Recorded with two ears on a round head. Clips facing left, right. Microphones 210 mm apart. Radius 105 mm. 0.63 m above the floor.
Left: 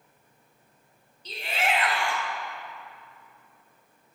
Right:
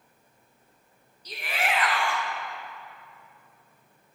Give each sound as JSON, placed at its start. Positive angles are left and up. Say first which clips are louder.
{"t": 1.2, "sound": "a shout", "louder": "left 2 dB", "side_deg": 25, "distance_m": 5.0}